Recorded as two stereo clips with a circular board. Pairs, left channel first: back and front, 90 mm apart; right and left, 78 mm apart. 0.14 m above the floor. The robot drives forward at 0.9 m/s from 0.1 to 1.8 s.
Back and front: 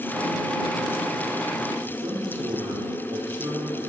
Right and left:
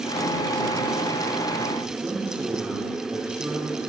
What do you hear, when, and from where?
1.9 s a man speaking: 40° left, 2 m